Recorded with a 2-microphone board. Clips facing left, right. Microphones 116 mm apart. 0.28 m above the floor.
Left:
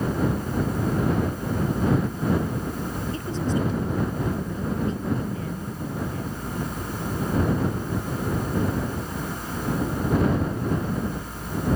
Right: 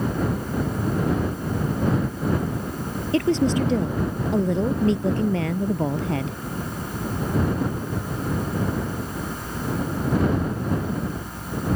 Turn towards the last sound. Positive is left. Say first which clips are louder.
# right 9 dB
turn(degrees=-75)  # may be behind; listen again after turning